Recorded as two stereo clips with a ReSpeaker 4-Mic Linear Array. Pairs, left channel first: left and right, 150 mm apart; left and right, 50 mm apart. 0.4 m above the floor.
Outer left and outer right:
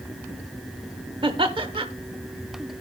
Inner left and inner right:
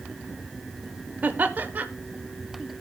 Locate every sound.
1.2 s laughter: 35° right (ahead or behind), 0.9 m